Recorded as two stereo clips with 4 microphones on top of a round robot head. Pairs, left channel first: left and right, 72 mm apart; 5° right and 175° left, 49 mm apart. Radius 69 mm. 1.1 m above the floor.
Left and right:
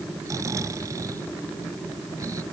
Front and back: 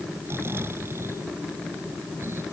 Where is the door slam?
I don't hear a door slam.